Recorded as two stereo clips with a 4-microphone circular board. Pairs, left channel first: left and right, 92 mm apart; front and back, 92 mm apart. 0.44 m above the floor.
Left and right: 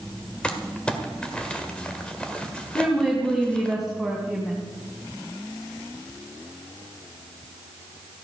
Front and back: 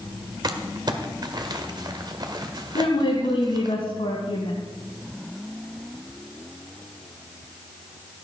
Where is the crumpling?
165° left, 1.7 m.